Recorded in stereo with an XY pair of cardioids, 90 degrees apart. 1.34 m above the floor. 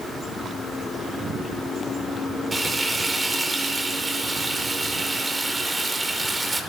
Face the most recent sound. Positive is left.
turn(degrees=-25)